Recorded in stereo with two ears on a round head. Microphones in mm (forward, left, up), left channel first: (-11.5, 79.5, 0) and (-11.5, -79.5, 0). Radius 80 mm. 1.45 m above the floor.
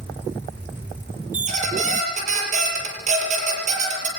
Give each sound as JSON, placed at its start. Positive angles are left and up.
{"t": 1.3, "sound": "a squeak", "side_deg": -45, "distance_m": 6.5}